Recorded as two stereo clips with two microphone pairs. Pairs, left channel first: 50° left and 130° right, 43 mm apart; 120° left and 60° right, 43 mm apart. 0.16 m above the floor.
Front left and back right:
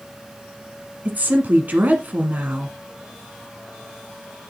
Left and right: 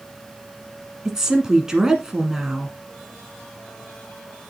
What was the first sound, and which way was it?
A woman speaking, 130° right.